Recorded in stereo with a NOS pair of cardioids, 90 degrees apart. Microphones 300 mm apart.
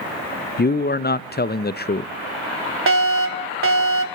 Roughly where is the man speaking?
Ahead left.